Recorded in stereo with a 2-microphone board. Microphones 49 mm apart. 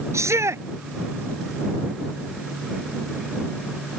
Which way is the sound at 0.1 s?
75° right (ahead or behind).